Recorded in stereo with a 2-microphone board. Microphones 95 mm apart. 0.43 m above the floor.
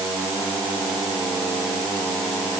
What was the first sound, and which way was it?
Only background noise.